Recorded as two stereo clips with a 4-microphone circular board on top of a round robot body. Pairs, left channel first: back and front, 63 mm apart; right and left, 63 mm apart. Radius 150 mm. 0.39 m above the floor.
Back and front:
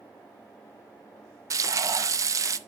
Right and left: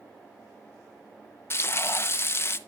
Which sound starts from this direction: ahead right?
Frying, at 1.5 s.